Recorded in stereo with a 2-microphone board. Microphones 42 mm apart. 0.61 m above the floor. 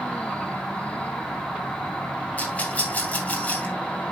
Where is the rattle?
40° left (ahead or behind), 2.5 m.